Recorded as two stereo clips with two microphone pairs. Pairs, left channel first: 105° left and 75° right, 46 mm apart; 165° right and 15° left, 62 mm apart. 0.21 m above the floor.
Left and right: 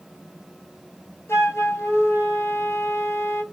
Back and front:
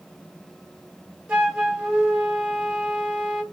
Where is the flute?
90° left, 1.2 m.